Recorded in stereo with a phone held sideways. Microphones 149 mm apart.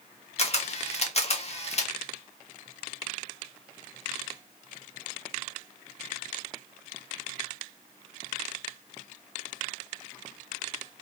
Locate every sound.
0.4 s a camera shutter: 45° left (ahead or behind), 0.7 m